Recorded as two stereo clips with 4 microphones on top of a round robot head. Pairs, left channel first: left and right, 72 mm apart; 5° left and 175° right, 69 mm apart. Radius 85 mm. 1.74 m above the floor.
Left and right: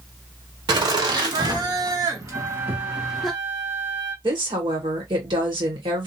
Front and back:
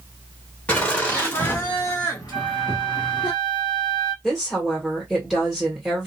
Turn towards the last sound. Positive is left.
turn(degrees=-90)